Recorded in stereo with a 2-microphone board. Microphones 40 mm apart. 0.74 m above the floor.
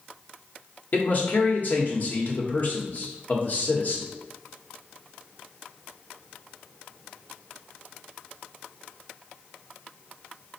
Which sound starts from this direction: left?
A man speaking, at 0.9 s.